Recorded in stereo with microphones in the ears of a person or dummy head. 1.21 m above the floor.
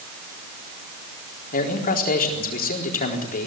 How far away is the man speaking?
About 4 m.